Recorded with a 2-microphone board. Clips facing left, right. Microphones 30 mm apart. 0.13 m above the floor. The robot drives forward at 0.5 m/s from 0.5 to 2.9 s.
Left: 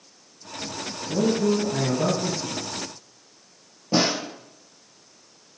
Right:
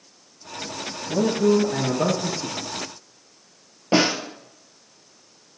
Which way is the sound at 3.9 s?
60° right (ahead or behind).